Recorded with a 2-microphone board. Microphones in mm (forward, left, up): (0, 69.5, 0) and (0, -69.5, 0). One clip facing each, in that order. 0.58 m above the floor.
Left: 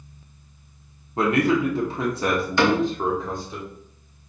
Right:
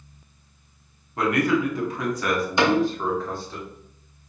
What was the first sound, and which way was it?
A man speaking, 25° left (ahead or behind).